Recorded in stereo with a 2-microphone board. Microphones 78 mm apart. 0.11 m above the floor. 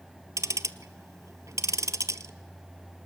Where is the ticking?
50° right (ahead or behind), 0.7 m.